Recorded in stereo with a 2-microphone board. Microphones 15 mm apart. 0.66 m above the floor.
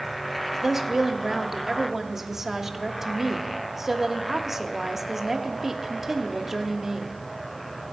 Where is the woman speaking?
20° right (ahead or behind), 1.0 m.